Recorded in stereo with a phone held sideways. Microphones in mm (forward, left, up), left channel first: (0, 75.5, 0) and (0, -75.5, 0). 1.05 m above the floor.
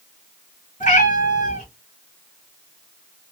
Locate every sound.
0.8 s a cat meowing: 60° left (ahead or behind), 1.9 m